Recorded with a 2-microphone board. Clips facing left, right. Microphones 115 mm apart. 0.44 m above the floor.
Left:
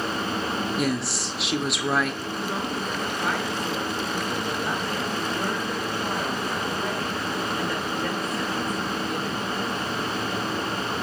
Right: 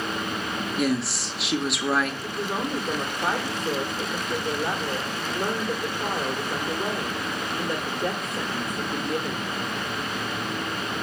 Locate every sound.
0.8 s a woman speaking: centre (ahead or behind), 1.0 m
2.2 s a woman speaking: 20° right (ahead or behind), 1.6 m